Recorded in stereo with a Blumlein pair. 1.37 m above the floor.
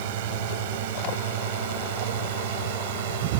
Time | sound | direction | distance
0.0 | a drone | 50° right | ?